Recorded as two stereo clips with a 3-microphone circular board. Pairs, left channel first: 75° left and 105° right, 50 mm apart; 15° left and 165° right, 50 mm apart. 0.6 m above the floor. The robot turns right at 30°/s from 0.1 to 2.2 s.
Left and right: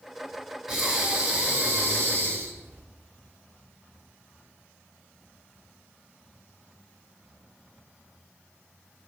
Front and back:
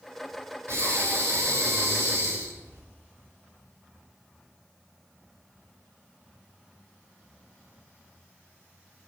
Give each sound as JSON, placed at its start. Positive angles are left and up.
{"t": 0.7, "sound": "breathing", "azimuth_deg": 170, "distance_m": 2.0}